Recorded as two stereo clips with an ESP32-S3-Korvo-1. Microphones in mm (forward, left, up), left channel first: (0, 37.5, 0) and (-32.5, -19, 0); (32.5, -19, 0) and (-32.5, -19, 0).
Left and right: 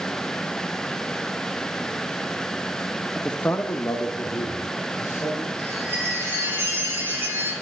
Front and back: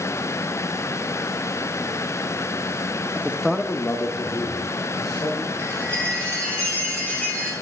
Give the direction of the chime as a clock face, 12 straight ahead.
2 o'clock.